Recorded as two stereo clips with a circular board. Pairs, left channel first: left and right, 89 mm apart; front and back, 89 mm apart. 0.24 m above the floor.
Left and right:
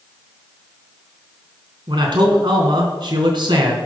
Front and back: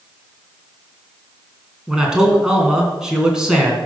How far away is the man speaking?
About 3 m.